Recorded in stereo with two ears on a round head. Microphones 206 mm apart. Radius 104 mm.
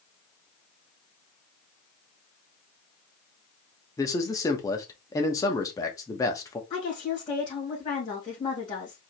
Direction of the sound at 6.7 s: 20° left (ahead or behind).